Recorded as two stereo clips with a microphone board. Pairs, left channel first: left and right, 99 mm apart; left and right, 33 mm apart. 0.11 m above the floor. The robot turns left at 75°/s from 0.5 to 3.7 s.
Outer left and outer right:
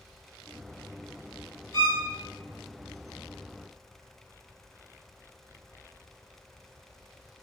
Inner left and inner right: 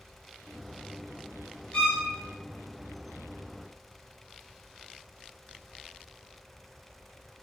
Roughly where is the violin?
Left.